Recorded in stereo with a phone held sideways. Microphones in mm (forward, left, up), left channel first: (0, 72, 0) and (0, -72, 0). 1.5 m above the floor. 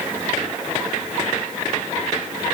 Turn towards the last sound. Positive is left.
No sound to turn to.